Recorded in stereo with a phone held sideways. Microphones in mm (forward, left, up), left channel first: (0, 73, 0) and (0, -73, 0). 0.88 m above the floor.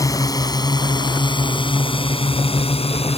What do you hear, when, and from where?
0.0 s a drone: 25° left (ahead or behind); by 3.2 s 45° left (ahead or behind)